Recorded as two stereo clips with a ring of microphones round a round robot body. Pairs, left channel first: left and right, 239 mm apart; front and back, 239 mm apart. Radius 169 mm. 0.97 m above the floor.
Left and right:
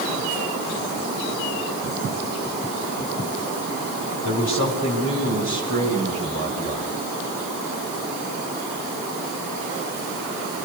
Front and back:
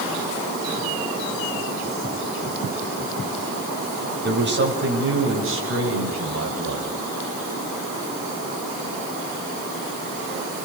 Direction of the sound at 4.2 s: 135° left.